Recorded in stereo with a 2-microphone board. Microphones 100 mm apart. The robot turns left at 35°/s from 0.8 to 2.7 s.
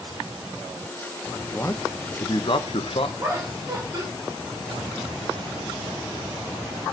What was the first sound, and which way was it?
A man speaking, 160° left.